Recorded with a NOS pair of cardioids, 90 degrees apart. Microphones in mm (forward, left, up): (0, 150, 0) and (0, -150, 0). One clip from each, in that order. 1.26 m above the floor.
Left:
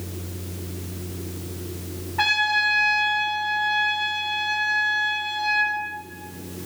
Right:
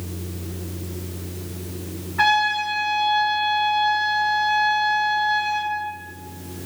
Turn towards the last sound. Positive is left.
turn(degrees=-10)